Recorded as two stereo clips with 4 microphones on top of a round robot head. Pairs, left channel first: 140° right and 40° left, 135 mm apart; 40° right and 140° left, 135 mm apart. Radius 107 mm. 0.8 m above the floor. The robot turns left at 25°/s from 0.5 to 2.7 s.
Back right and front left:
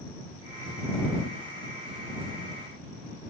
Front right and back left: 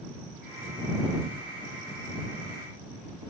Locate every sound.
Only background noise.